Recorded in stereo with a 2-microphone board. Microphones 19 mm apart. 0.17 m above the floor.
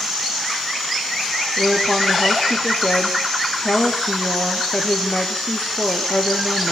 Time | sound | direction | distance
1.6 | a woman speaking | 60° left (ahead or behind) | 4 m